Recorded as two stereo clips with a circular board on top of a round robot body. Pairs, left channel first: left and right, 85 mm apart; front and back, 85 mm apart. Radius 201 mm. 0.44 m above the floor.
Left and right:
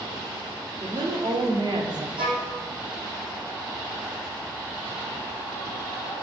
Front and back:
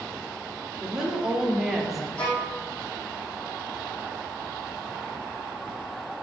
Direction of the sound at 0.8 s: 100° right.